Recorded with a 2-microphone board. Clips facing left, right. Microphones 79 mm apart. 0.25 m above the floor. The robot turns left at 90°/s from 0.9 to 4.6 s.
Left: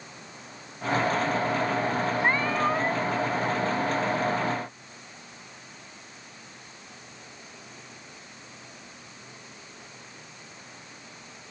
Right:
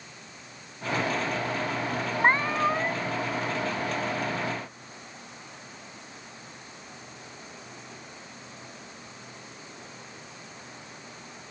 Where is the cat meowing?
135° right; by 3.1 s 150° left.